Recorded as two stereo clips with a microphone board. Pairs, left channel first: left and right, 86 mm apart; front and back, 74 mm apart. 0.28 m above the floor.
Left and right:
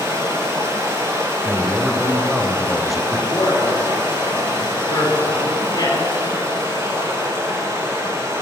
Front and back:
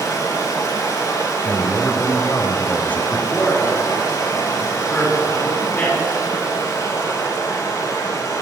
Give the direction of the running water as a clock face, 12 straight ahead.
1 o'clock.